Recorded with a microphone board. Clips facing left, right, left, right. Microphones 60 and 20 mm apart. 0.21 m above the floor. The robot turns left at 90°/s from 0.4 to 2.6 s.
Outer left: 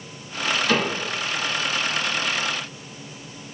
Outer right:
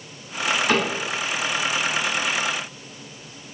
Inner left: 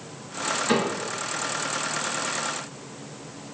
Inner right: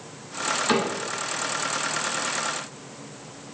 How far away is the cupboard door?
About 1.5 m.